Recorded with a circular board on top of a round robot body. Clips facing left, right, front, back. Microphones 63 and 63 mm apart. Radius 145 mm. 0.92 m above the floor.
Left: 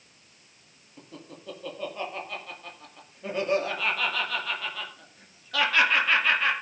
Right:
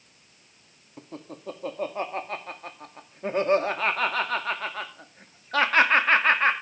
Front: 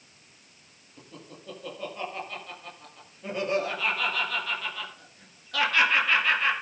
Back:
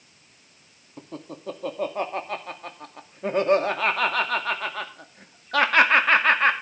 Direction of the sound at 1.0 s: 140° right.